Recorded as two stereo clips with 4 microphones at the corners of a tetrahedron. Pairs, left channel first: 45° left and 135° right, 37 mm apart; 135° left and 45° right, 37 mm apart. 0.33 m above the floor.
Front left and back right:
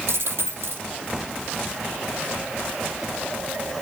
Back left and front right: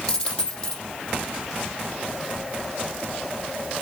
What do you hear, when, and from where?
0.1 s a dropped coin: 165° right, 4 m